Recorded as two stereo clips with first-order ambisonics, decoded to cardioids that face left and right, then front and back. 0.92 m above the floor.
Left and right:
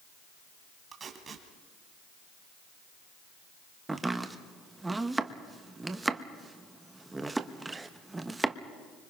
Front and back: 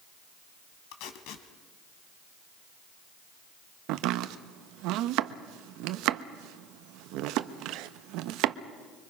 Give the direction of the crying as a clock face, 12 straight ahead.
No crying in this recording.